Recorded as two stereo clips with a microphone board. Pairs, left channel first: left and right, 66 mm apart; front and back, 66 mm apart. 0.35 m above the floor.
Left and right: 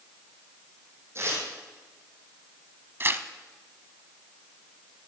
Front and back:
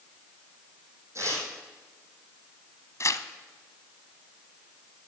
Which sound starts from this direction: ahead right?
Tearing paper, at 3.0 s.